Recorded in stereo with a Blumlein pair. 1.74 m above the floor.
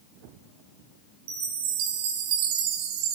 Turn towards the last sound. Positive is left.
turn(degrees=-45)